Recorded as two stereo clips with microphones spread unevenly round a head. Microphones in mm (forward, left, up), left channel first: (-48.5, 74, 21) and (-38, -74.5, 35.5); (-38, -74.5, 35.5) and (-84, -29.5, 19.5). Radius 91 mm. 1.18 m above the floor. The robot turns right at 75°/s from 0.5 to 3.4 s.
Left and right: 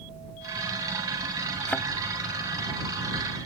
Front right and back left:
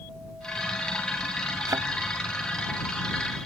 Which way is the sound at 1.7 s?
170° left.